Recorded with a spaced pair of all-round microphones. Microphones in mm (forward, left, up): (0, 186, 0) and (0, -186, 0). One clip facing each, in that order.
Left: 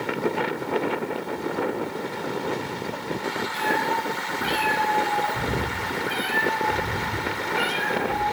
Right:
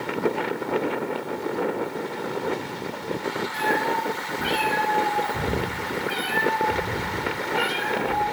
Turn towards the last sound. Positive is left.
turn(degrees=0)  # may be behind; listen again after turning